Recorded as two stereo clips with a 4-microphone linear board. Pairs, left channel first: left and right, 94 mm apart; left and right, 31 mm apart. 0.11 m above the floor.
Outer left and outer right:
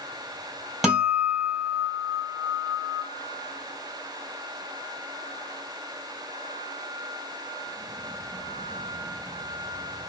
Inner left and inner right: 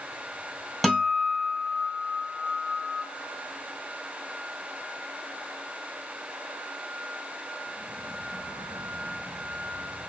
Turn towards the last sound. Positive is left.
turn(degrees=-5)  # may be behind; listen again after turning